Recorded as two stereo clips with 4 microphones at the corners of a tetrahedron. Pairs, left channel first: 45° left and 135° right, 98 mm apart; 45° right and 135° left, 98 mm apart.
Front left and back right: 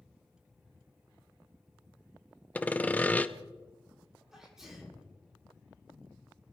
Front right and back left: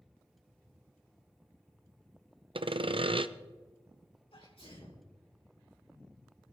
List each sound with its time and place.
2.5 s sawing: 120° left, 0.6 m
4.3 s a sneeze: 50° right, 4.5 m